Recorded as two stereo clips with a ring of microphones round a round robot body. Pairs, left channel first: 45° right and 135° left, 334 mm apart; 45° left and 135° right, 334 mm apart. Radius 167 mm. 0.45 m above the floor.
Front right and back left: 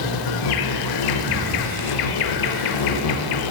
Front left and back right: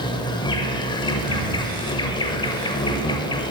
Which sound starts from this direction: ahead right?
An insect, at 0.0 s.